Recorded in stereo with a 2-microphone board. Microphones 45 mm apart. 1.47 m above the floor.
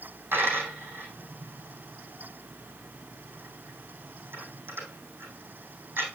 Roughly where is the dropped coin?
Right.